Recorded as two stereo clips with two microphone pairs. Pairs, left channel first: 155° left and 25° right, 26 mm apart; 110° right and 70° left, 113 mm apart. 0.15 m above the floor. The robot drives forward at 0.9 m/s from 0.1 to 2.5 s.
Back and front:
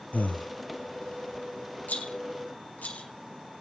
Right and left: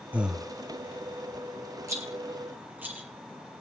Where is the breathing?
145° left, 0.6 m; by 0.5 s 160° left, 0.9 m.